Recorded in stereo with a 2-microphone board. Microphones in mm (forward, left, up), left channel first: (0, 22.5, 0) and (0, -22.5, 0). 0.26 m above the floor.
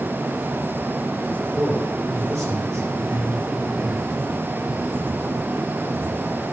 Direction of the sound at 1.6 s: 80° right.